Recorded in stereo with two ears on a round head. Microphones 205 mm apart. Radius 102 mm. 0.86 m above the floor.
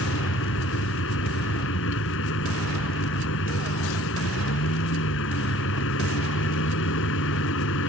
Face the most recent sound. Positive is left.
turn(degrees=60)  # may be behind; listen again after turning